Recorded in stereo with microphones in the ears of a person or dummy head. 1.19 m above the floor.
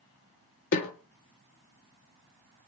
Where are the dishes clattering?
No dishes clattering in this recording.